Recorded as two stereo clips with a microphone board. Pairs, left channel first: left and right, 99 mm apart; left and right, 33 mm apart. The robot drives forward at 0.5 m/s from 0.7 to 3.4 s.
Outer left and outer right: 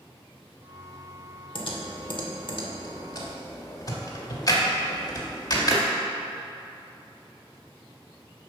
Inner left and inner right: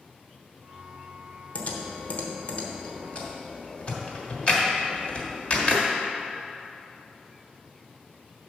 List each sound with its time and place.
1.6 s typing on a keyboard: 55° left (ahead or behind), 1.1 m; by 5.8 s 40° left (ahead or behind), 1.4 m